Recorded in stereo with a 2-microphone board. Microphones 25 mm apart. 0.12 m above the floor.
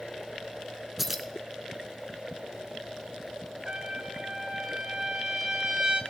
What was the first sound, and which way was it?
Keys jangling, 10° right (ahead or behind).